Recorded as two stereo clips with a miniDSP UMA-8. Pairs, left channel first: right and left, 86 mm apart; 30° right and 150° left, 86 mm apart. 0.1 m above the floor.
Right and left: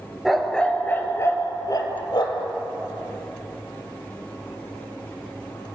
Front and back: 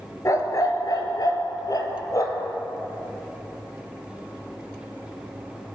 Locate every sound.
0.2 s a dog barking: straight ahead, 0.9 m; by 2.5 s 75° right, 1.4 m